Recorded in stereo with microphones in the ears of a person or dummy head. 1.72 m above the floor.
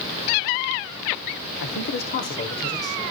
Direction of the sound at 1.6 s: 75° left (ahead or behind).